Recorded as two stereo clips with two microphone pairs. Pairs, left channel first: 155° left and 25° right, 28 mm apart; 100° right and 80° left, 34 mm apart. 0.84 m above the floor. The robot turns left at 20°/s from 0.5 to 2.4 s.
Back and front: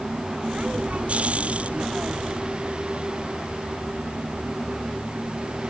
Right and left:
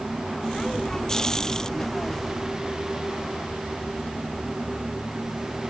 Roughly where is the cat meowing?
No cat meowing in this recording.